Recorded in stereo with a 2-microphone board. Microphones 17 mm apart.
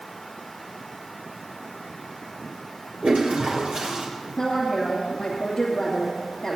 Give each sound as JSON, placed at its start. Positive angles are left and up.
{"t": 3.0, "sound": "a toilet flushing", "side_deg": -55, "distance_m": 4.0}
{"t": 4.4, "sound": "a woman speaking", "side_deg": 30, "distance_m": 2.5}